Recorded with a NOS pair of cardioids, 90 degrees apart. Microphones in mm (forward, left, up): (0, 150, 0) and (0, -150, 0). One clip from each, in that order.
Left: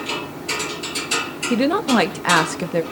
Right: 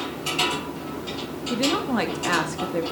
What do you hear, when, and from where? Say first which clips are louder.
1.5 s a woman speaking: left 5 dB; 40° left, 2 m